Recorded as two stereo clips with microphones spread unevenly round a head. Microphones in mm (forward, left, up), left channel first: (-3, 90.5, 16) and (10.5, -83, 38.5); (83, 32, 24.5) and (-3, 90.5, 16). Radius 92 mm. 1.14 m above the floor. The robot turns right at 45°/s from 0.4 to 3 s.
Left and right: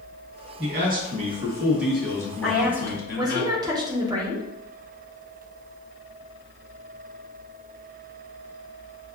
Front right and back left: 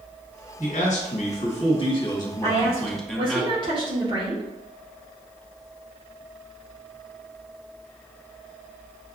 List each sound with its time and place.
0.6 s a man speaking: 55° right, 1.4 m; by 3.4 s 55° left, 1.4 m
2.4 s a woman speaking: 175° left, 1.0 m; by 4.5 s 155° right, 1.0 m